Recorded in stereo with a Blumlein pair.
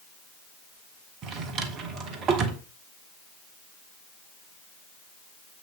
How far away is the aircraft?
No aircraft in this recording.